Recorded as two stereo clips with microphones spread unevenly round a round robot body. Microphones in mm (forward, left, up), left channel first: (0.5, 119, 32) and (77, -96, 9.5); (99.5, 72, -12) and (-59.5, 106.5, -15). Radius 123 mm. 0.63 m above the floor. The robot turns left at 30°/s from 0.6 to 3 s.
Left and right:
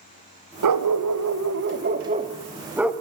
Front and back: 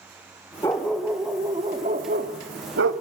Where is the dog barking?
90° right, 1.3 m; by 2.9 s 160° right, 1.3 m.